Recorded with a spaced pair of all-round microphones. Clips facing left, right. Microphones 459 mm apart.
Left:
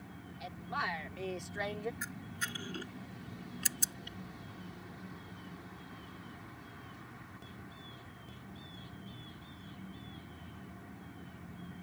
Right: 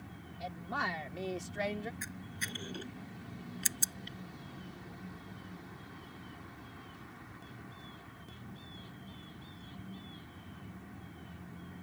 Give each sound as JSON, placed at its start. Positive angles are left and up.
{"t": 0.4, "sound": "a woman speaking", "side_deg": -70}
{"t": 2.0, "sound": "a camera shutter", "side_deg": 30}